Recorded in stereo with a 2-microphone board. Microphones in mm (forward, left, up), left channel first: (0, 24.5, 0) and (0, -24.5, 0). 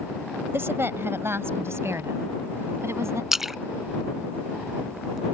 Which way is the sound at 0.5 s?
50° right (ahead or behind).